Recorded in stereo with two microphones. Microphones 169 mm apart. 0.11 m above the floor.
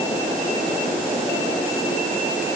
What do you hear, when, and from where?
Only background noise.